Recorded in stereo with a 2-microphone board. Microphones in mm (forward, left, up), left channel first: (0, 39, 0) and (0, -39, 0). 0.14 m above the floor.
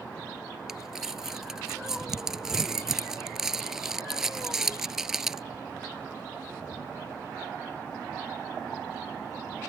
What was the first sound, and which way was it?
Crumpling, 5° right (ahead or behind).